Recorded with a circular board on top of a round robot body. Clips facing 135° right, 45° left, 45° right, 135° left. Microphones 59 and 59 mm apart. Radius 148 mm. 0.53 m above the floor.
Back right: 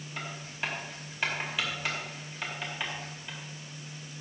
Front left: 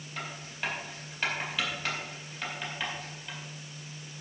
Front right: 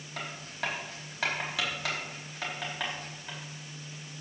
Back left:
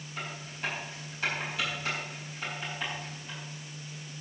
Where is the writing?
50° right, 4.5 m.